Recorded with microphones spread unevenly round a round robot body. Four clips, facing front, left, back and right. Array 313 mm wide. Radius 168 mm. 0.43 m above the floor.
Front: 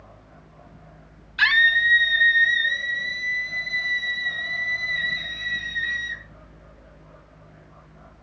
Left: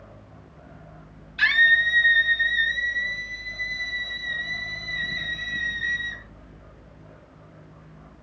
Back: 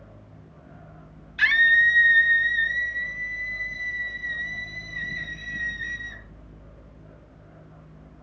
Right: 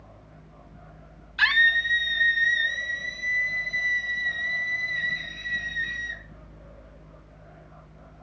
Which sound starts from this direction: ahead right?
A scream, at 1.4 s.